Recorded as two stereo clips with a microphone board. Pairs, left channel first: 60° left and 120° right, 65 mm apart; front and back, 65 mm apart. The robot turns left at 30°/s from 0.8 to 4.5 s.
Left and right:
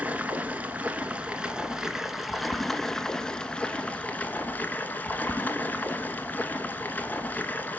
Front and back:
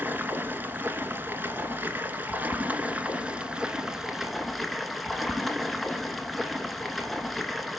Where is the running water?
160° right, 0.8 m; by 7.8 s 90° left, 0.8 m.